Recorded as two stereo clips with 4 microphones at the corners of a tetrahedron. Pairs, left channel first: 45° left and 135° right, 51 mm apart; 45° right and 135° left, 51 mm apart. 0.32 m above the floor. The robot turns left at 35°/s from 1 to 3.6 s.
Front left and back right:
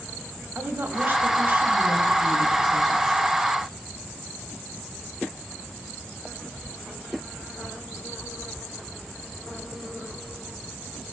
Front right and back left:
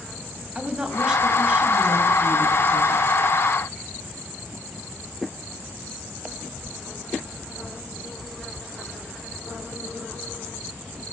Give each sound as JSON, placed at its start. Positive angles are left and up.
{"t": 0.6, "sound": "a woman speaking", "azimuth_deg": -155, "distance_m": 1.7}